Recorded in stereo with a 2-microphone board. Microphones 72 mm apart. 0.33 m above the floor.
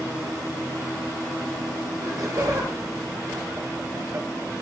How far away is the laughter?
About 5.5 m.